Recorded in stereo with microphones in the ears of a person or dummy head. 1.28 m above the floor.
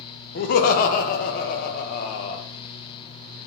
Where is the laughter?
50° left (ahead or behind), 0.7 m.